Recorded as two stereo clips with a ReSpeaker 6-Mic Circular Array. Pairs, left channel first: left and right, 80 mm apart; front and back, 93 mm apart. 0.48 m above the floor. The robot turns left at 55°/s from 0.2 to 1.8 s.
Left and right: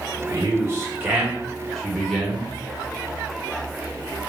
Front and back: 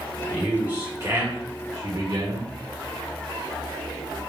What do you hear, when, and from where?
0.3 s a man speaking: 95° right, 1.7 m; by 2.5 s straight behind, 1.7 m